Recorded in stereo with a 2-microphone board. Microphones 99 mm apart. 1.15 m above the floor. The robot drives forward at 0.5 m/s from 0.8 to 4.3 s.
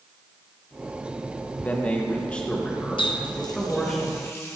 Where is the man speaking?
20° left (ahead or behind), 0.7 m; by 4.0 s 5° left (ahead or behind), 1.9 m.